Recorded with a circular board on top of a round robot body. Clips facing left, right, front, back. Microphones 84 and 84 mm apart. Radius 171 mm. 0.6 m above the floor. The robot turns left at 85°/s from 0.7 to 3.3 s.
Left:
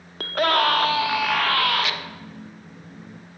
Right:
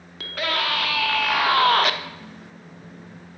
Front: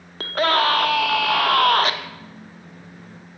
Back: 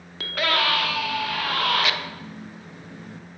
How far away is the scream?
About 1.6 m.